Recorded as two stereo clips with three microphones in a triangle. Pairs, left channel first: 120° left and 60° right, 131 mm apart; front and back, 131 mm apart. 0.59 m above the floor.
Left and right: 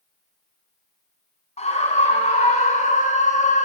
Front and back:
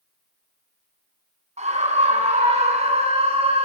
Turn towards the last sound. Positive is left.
turn(degrees=140)